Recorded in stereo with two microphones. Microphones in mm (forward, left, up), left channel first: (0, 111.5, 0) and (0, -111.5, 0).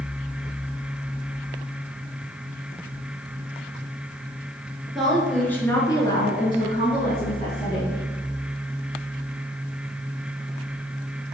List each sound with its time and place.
5.0 s a woman speaking: centre (ahead or behind), 1.3 m; by 8.0 s 25° left (ahead or behind), 1.9 m